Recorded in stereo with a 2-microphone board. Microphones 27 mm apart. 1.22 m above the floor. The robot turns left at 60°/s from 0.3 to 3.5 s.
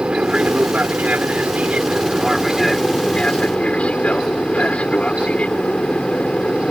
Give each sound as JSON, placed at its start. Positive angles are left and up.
{"t": 0.0, "sound": "an aircraft", "azimuth_deg": -40}